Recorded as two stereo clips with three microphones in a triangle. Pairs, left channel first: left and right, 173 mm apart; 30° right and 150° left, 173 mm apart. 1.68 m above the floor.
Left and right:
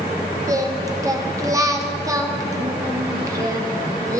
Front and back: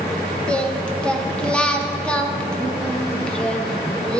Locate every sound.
0.5 s singing: 100° right, 0.7 m